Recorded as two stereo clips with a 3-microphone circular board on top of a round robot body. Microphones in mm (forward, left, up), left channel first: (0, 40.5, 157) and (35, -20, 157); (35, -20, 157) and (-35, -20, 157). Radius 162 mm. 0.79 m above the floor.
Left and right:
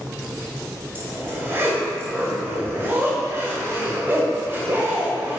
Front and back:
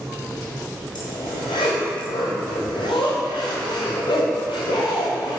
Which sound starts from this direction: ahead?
A zipper, at 0.9 s.